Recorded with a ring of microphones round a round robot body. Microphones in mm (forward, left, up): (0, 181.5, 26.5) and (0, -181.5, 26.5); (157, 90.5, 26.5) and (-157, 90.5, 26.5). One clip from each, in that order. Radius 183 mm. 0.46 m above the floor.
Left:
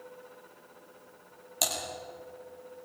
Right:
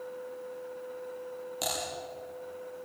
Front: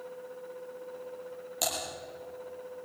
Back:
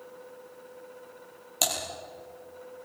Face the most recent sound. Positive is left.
turn(degrees=135)